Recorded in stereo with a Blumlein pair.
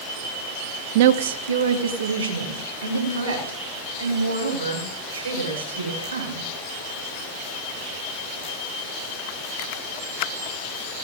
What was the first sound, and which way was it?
A woman speaking, 50° right.